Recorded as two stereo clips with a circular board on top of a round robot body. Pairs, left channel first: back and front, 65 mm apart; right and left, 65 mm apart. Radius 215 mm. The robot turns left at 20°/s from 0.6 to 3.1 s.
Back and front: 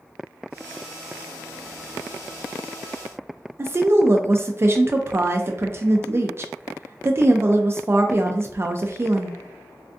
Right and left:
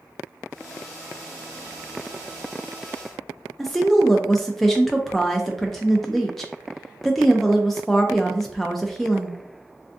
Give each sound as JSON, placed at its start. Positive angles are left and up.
{"t": 3.6, "sound": "a woman speaking", "azimuth_deg": -5, "distance_m": 0.5}